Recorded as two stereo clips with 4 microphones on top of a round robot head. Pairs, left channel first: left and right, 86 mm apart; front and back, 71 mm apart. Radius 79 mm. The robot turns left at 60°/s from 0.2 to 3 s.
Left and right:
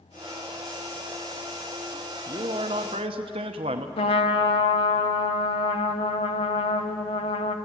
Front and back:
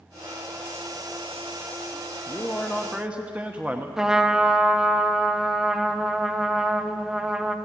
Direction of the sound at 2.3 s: 55° right.